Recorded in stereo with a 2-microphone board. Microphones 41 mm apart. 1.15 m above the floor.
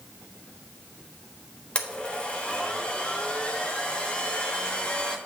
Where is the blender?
30° left (ahead or behind), 1.3 m.